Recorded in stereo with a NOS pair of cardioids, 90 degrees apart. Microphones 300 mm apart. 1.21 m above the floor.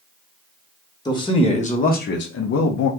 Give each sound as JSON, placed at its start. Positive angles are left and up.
{"t": 1.1, "sound": "a man speaking", "azimuth_deg": 15, "distance_m": 1.4}